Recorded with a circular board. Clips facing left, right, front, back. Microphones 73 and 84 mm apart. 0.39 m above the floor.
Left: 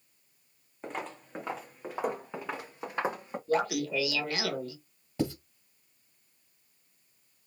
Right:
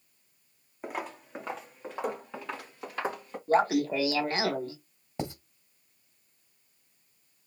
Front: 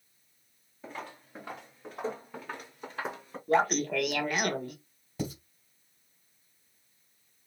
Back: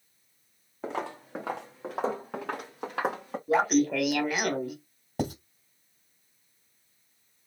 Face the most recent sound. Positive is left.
turn(degrees=-155)